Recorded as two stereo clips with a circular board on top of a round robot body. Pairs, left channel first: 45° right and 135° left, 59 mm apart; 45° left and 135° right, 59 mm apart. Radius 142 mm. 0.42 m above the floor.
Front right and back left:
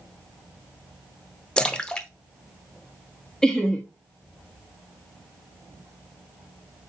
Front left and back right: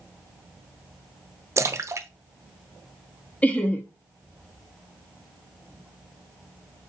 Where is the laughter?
20° left, 0.9 m.